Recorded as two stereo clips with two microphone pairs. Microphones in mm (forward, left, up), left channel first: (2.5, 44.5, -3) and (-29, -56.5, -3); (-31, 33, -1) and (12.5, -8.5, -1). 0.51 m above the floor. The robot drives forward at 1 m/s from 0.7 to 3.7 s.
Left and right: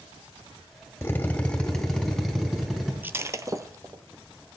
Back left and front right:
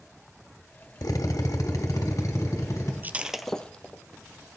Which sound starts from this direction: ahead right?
Breaking glass, at 3.0 s.